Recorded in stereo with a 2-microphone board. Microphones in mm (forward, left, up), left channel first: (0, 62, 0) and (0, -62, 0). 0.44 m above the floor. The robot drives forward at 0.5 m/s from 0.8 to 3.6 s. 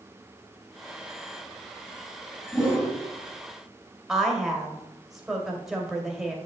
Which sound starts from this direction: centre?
A woman speaking, at 4.1 s.